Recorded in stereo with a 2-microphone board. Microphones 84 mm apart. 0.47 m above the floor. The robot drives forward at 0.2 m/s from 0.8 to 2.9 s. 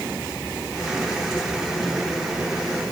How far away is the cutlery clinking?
No cutlery clinking in this recording.